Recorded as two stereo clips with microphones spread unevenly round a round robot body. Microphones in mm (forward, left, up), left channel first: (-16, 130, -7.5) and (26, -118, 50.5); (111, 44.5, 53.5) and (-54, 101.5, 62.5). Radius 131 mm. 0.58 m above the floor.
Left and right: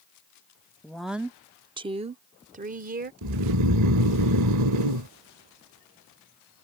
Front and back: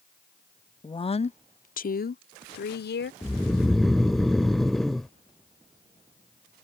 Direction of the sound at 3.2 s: 110° right.